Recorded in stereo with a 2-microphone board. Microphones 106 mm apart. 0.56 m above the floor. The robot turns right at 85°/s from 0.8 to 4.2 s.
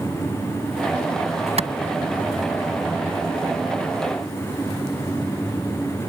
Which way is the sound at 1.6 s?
80° right.